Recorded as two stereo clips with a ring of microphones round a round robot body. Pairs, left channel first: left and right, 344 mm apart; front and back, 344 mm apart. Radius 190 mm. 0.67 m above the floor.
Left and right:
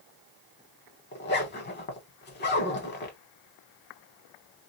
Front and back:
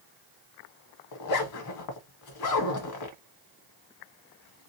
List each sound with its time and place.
1.1 s a zipper: 30° left, 0.9 m